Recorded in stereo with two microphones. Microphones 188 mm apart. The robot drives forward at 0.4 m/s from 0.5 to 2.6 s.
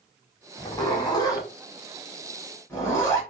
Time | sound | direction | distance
0.6 | a zipper | 25° left (ahead or behind) | 1.1 m